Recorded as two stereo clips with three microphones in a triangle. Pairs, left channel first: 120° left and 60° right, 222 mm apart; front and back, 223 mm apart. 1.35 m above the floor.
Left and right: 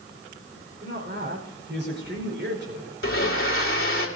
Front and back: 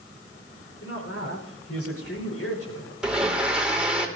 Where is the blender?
95° left, 2.5 m.